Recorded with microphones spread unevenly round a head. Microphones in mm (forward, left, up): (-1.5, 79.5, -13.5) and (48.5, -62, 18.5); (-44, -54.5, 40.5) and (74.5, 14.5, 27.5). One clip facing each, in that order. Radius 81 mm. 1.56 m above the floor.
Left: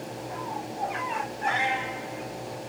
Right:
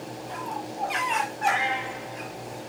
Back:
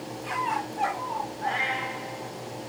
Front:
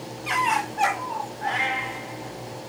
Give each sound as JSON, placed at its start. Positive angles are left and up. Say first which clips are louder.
{"t": 1.4, "sound": "a cat meowing", "louder": "even, front 3 dB", "azimuth_deg": 35, "distance_m": 1.5}